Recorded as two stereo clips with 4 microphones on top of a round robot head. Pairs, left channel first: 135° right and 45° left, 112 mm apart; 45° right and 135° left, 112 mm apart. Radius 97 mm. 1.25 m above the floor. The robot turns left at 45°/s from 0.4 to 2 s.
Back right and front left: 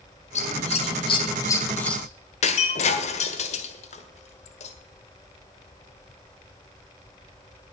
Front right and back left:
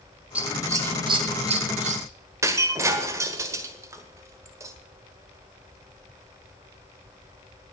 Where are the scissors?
145° right, 2.5 m; by 2.0 s 140° left, 2.5 m.